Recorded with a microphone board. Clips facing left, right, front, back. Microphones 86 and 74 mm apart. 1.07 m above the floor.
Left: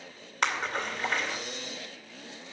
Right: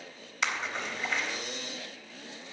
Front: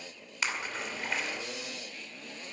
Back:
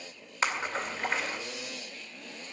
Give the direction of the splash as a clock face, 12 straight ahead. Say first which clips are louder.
Left 3 dB, back 4 dB; 8 o'clock.